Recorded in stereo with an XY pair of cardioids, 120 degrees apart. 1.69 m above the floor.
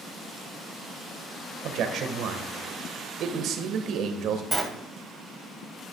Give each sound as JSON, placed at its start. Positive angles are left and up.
{"t": 1.6, "sound": "a man speaking", "azimuth_deg": -65, "distance_m": 1.5}
{"t": 4.5, "sound": "a sliding door", "azimuth_deg": -15, "distance_m": 1.6}